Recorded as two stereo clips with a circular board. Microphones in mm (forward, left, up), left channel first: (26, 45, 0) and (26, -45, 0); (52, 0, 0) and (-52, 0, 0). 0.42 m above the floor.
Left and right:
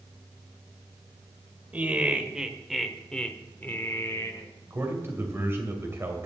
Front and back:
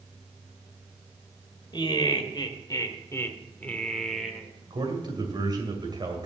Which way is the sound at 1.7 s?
20° right.